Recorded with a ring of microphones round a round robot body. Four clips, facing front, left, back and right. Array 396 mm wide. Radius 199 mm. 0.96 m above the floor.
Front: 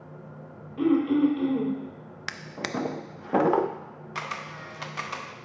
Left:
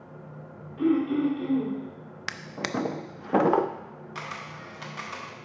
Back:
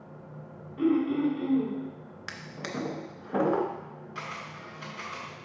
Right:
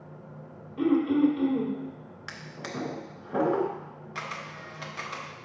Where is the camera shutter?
Straight ahead, 0.9 m.